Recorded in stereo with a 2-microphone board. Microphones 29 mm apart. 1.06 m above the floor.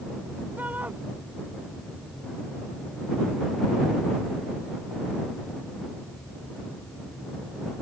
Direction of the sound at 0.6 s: 70° right (ahead or behind).